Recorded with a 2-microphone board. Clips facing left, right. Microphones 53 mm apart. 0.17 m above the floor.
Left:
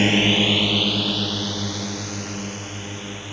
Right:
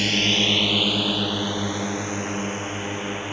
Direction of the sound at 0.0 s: 25° left (ahead or behind).